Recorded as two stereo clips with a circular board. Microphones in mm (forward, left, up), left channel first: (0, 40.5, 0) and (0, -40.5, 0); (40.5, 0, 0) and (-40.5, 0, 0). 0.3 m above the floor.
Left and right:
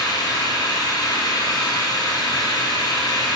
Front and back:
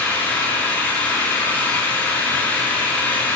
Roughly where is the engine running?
Ahead left.